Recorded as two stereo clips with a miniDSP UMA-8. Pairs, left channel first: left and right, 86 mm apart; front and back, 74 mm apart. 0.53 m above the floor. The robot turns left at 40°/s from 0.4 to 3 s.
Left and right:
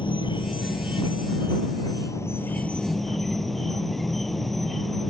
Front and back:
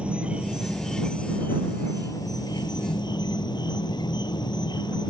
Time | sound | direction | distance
0.0 | an insect | 105° left | ?